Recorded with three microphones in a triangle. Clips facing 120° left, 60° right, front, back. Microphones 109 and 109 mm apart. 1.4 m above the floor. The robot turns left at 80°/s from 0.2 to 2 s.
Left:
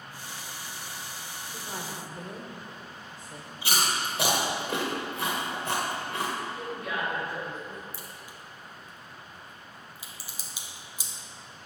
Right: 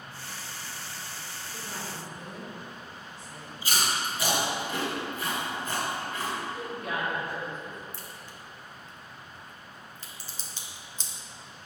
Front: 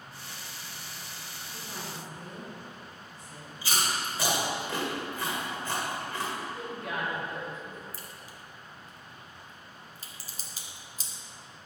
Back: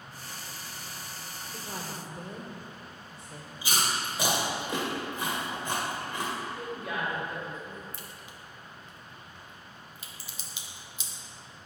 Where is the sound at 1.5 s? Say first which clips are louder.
Left 1 dB, back 2 dB; 165° right, 1.4 m; by 3.5 s 160° left, 1.4 m.